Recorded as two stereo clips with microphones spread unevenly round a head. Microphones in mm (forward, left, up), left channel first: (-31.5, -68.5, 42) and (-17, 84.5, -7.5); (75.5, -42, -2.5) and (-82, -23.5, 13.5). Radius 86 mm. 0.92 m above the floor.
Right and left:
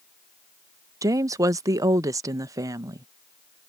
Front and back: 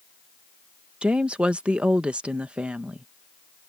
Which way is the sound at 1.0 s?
85° left.